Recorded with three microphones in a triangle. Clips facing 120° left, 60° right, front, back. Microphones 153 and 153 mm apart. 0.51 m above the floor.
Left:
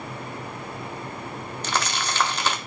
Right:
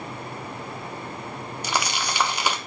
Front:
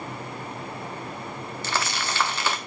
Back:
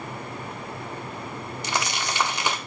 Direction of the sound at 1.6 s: 125° right.